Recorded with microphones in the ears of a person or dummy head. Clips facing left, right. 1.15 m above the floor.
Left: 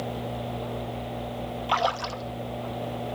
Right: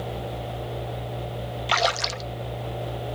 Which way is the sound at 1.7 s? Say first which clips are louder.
Right 2 dB; 20° right (ahead or behind).